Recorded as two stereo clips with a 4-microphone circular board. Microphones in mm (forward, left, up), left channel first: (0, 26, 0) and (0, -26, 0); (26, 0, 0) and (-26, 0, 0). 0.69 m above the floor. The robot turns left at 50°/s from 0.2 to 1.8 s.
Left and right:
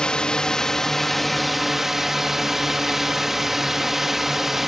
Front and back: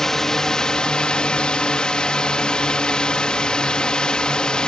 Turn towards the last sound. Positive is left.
turn(degrees=-20)